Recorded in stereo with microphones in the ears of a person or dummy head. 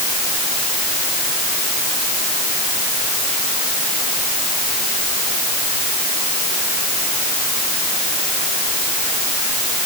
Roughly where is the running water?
I don't hear running water.